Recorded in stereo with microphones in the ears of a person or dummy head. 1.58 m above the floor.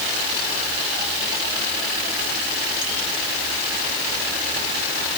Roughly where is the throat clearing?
I don't hear throat clearing.